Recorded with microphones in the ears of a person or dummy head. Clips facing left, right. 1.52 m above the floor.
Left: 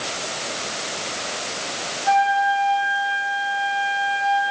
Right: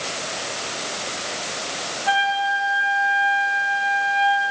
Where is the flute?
45° right (ahead or behind), 3 m.